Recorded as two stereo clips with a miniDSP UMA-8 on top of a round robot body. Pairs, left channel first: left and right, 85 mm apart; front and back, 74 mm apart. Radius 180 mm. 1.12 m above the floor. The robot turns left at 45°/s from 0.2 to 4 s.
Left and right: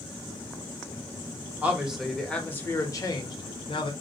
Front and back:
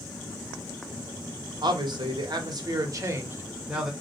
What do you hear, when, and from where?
1.6 s a man speaking: 160° right, 1.0 m; by 3.9 s 95° left, 1.0 m